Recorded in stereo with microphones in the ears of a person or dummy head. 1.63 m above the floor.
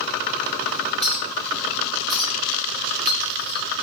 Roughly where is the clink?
Centre.